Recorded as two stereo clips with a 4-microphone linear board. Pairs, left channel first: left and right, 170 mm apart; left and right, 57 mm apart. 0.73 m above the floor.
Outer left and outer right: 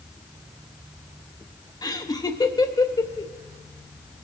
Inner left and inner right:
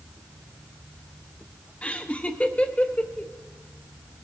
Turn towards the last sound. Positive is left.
turn(degrees=25)  # may be behind; listen again after turning